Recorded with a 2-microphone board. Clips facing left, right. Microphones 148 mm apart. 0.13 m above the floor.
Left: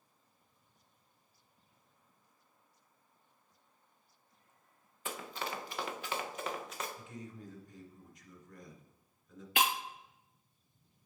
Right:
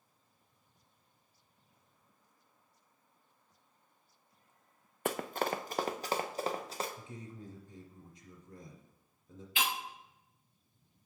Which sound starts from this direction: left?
Breaking glass, at 9.6 s.